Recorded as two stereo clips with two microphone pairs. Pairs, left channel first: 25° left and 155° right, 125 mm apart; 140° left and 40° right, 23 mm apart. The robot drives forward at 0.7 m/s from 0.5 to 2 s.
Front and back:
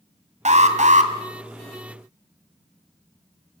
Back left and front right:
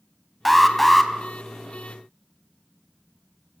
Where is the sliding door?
No sliding door in this recording.